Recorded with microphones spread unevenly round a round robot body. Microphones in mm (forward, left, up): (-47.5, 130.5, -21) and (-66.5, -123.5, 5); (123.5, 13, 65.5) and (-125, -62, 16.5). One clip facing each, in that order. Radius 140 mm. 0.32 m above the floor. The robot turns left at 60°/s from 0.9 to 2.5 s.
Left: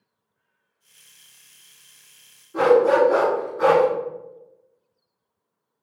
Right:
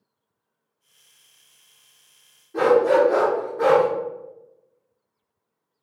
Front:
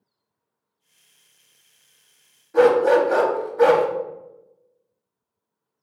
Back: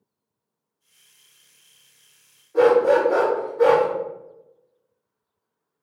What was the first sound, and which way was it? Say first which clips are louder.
A dog barking: left 1 dB, front 1 dB; straight ahead.